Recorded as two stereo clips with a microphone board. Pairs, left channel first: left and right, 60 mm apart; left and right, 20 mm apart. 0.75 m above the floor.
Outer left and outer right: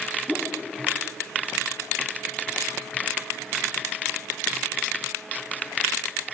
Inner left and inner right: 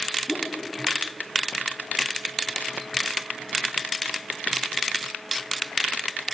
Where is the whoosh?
Centre (ahead or behind), 1.3 m.